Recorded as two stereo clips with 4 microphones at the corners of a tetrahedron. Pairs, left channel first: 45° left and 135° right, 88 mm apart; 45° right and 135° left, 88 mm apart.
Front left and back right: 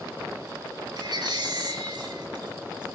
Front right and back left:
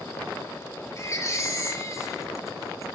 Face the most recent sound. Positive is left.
turn(degrees=-100)